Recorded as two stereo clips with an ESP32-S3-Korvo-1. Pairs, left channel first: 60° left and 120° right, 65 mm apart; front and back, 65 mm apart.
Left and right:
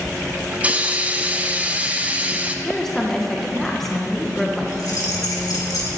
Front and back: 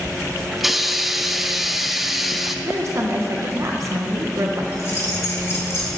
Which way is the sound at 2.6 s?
145° left.